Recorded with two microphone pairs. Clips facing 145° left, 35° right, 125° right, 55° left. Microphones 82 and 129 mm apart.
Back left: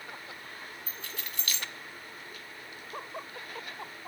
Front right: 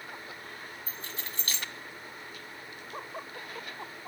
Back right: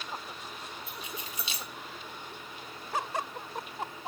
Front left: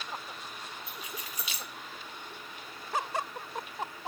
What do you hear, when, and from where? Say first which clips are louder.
0.9 s keys jangling: front right 1 dB, back right 1 dB; 75° right, 1.1 m